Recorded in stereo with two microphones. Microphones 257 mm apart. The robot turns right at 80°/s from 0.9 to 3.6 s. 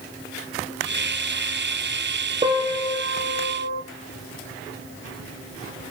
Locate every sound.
2.4 s a piano: 150° right, 3 m; by 3.8 s 55° right, 3 m